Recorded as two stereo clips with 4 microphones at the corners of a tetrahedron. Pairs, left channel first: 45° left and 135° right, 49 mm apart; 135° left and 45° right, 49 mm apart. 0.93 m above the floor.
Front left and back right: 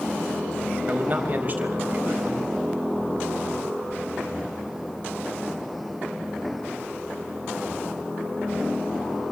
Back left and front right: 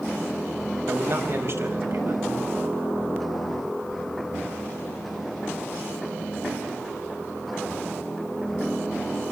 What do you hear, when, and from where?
0.9 s a man speaking: 80° right, 4.5 m